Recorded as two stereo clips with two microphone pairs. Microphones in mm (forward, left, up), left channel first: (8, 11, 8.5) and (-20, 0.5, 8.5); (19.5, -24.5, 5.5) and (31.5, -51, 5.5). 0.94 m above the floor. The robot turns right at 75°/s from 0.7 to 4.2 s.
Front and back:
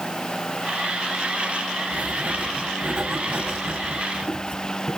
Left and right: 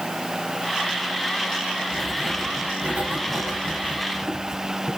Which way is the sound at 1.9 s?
175° left.